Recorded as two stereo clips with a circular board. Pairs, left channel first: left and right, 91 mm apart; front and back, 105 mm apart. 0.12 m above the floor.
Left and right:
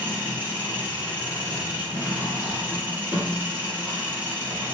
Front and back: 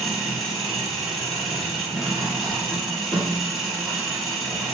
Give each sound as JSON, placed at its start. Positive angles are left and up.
{"t": 0.0, "sound": "an engine running", "azimuth_deg": -90, "distance_m": 1.3}